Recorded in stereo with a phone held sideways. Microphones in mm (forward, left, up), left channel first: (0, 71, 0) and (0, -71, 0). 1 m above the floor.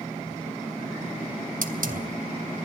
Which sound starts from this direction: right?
A hiss, at 1.6 s.